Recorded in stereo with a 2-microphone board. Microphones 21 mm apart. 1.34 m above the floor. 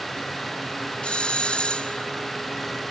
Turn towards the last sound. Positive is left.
turn(degrees=65)  # may be behind; listen again after turning